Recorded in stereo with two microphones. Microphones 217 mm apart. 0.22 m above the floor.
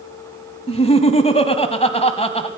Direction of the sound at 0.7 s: 30° left (ahead or behind).